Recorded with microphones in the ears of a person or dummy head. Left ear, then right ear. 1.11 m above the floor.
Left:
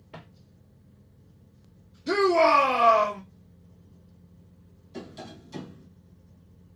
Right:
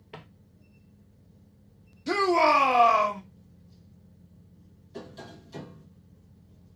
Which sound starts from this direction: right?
Footsteps, at 0.1 s.